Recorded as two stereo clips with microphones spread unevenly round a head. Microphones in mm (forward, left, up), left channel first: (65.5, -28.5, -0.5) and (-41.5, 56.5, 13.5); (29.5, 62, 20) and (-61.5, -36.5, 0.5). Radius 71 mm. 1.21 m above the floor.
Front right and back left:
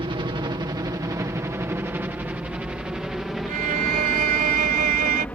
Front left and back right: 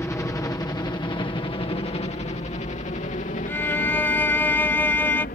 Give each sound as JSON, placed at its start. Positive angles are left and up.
{"t": 0.0, "sound": "a helicopter", "azimuth_deg": 115}
{"t": 3.5, "sound": "a violin", "azimuth_deg": 120}